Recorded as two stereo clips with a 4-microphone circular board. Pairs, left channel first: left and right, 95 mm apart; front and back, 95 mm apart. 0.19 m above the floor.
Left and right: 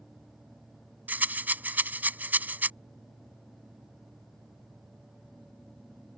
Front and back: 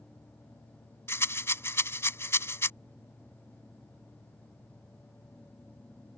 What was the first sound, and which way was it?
A rattle, 35° right.